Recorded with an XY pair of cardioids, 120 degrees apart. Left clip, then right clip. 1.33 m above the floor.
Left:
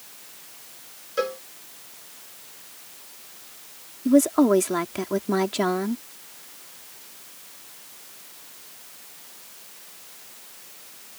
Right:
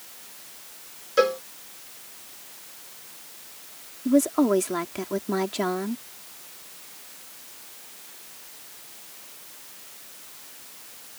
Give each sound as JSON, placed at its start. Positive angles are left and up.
{"t": 1.2, "sound": "a cowbell", "azimuth_deg": -30}
{"t": 4.0, "sound": "a woman speaking", "azimuth_deg": 20}